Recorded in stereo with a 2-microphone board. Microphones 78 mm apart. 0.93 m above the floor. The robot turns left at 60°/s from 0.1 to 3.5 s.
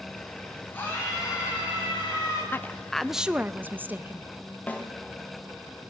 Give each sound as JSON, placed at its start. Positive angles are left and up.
{"t": 0.7, "sound": "a scream", "azimuth_deg": 155, "distance_m": 9.5}
{"t": 2.5, "sound": "a woman speaking", "azimuth_deg": 35, "distance_m": 0.5}
{"t": 4.7, "sound": "a snare drum", "side_deg": 20, "distance_m": 2.0}